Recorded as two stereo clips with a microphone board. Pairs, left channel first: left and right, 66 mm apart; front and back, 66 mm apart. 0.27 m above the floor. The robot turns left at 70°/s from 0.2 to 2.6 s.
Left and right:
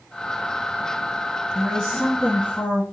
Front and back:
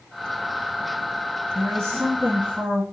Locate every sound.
1.6 s a woman speaking: 160° right, 1.7 m; by 2.8 s 125° left, 1.7 m